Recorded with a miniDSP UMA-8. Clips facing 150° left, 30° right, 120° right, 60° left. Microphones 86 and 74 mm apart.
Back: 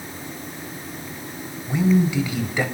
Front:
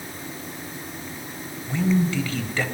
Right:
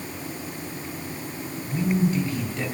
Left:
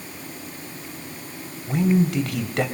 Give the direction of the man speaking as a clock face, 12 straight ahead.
10 o'clock.